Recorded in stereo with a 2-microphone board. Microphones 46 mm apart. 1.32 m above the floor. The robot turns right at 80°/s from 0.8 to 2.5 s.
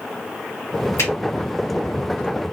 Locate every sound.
1.0 s a finger snap: 85° left, 2 m; by 1.1 s 75° left (ahead or behind), 2 m